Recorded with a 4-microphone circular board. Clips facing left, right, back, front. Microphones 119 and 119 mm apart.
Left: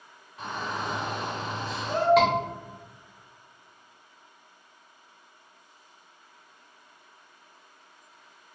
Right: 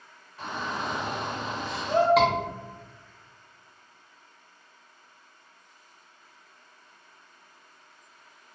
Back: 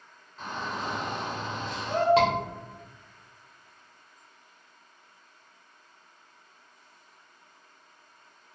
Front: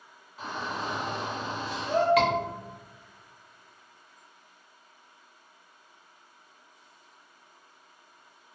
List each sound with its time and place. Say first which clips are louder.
0.4 s a shout: even, even; 55° left, 1.5 m
2.2 s a scream: even, back 1 dB; 175° right, 1.0 m